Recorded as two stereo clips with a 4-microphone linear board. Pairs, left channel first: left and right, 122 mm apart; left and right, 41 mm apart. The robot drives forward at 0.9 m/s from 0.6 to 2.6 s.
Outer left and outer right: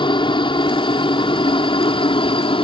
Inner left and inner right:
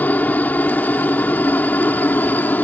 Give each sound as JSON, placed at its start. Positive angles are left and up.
{"t": 0.0, "sound": "a helicopter", "side_deg": 40}